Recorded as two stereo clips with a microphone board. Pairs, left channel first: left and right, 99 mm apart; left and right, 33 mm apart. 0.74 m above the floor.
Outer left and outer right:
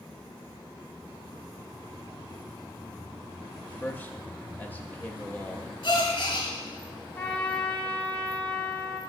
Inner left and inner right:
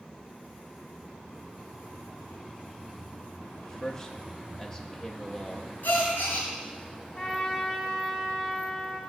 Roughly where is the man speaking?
Centre.